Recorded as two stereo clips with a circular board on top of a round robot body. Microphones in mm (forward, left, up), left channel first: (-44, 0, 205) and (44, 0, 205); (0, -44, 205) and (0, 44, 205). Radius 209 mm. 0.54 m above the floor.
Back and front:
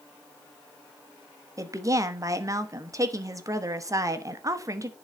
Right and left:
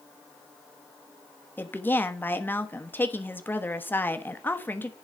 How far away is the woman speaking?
About 1.4 m.